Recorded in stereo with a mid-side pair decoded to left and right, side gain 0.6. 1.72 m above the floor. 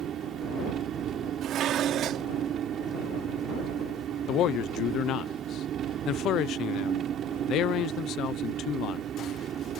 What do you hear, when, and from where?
0.0 s an engine running: 50° right
1.4 s dishes clattering: 55° right
4.3 s a man speaking: 60° left